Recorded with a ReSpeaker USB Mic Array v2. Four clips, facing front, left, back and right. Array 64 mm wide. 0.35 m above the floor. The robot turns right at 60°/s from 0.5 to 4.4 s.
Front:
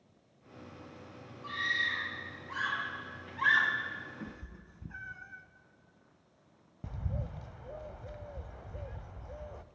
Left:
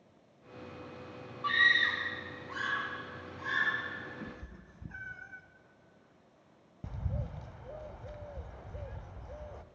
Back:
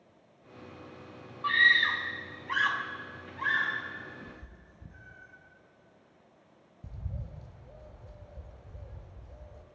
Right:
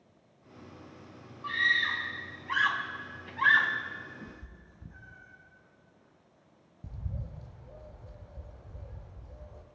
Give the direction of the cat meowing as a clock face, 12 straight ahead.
11 o'clock.